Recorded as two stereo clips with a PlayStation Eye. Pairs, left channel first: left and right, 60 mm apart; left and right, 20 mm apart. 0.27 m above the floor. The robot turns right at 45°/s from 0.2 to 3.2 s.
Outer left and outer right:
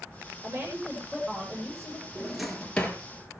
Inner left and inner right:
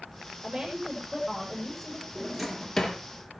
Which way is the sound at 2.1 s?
15° right.